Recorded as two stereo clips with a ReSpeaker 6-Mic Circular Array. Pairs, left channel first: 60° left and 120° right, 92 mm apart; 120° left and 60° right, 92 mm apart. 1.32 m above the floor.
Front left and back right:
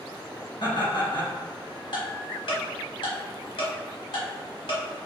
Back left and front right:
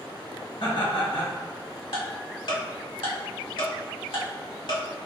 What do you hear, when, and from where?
0.6 s laughter: 90° left, 1.4 m
1.9 s ticking: 95° left, 1.1 m